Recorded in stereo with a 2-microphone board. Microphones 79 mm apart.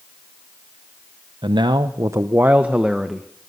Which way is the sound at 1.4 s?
80° right.